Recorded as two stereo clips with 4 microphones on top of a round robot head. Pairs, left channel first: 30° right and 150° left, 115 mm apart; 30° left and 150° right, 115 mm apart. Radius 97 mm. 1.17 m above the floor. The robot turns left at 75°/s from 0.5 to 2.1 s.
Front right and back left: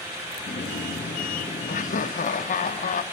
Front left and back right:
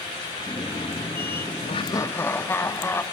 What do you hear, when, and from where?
1.7 s laughter: 10° right, 1.0 m; by 3.0 s 40° right, 1.0 m